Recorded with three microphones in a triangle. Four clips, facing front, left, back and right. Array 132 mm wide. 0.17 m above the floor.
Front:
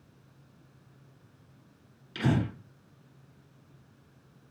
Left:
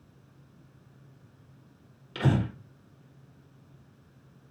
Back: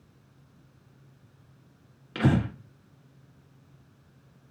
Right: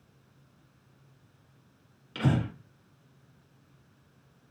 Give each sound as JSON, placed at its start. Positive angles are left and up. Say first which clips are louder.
{"t": 2.1, "sound": "breathing", "louder": "left 1 dB, back 3 dB", "azimuth_deg": 175, "distance_m": 2.0}